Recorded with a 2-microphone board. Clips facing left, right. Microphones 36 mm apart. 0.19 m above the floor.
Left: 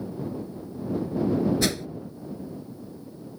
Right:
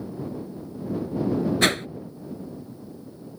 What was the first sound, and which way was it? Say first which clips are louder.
A whoosh: right 5 dB; 55° right (ahead or behind).